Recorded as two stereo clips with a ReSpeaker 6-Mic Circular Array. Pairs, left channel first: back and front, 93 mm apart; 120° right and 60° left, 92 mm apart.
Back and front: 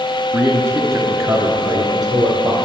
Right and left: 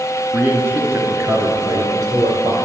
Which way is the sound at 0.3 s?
10° left.